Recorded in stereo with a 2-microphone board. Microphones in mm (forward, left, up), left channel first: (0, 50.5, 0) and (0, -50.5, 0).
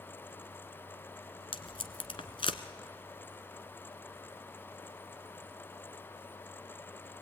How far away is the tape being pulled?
About 1.2 m.